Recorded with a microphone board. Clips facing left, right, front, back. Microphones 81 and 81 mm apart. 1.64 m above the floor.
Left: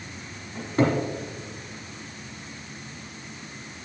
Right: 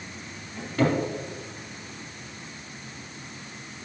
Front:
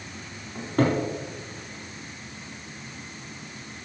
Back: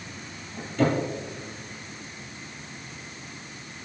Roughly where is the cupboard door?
Ahead left.